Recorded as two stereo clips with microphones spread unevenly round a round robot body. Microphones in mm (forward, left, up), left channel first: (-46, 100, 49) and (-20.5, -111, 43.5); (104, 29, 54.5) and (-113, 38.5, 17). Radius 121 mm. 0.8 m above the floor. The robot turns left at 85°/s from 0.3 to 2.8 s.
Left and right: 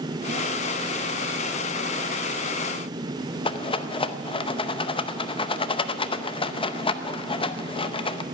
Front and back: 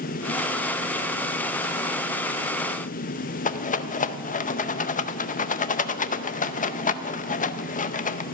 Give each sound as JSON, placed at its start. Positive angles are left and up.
{"t": 3.5, "sound": "a rattle", "azimuth_deg": 45, "distance_m": 0.7}